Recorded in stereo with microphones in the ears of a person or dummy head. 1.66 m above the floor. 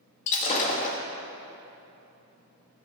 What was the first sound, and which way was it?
Breaking glass, 40° left (ahead or behind).